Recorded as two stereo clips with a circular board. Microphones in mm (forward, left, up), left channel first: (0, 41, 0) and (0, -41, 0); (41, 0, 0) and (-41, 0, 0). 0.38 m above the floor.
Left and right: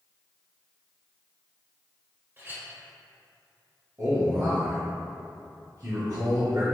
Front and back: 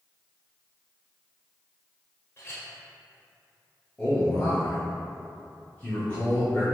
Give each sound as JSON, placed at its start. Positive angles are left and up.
{"t": 2.4, "sound": "a clink", "azimuth_deg": -40, "distance_m": 0.9}
{"t": 4.0, "sound": "a man speaking", "azimuth_deg": -65, "distance_m": 1.7}